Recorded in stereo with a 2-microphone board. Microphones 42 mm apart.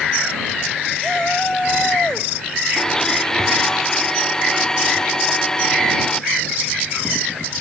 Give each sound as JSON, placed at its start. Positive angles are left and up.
{"t": 1.0, "sound": "a shout", "side_deg": 20}
{"t": 2.8, "sound": "a blender", "side_deg": 15}